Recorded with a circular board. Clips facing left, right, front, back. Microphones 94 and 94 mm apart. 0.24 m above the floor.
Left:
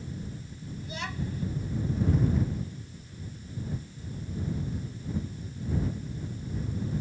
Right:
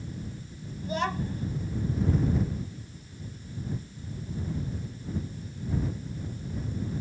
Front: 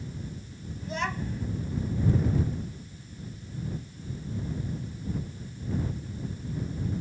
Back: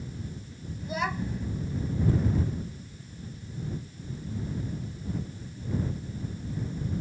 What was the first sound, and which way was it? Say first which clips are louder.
A child speaking: right 7 dB, back 1 dB; 100° right.